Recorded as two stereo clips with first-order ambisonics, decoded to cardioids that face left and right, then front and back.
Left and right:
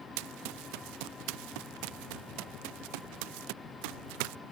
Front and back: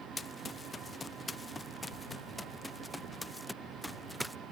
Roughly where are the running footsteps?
Right.